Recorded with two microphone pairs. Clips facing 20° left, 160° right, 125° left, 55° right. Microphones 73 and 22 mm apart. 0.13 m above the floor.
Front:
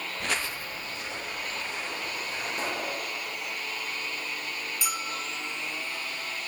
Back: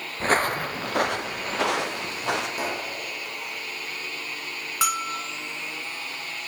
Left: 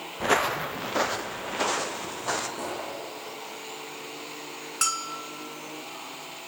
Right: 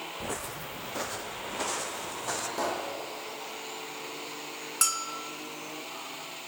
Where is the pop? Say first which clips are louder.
Back 2 dB, right 2 dB; 75° right, 5.5 m.